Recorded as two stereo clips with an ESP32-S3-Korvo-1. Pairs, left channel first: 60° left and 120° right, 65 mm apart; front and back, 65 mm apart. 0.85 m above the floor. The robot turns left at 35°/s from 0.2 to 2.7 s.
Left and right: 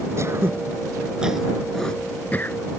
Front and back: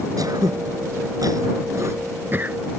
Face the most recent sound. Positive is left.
turn(degrees=110)